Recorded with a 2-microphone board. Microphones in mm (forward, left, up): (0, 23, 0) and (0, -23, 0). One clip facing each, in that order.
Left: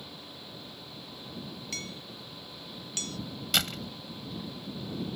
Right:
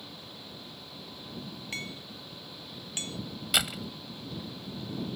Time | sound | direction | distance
1.7 | hammering | 25° right (ahead or behind) | ?
3.5 | a door slam | 10° right (ahead or behind) | ?